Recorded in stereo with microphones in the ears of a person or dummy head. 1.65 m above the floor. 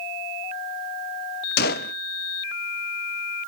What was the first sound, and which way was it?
A gunshot, 55° left (ahead or behind).